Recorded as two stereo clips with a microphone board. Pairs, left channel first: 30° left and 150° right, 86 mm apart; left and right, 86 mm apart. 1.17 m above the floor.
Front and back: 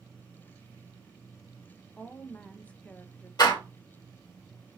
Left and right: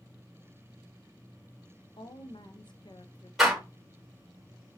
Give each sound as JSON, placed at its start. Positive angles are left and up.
{"t": 2.0, "sound": "a woman speaking", "azimuth_deg": 105, "distance_m": 0.6}
{"t": 3.4, "sound": "a door slam", "azimuth_deg": 0, "distance_m": 1.4}